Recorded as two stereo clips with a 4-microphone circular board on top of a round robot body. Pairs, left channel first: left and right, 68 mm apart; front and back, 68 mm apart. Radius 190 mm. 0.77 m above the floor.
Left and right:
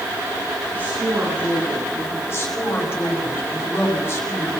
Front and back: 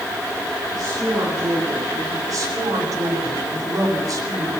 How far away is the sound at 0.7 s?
About 9.5 m.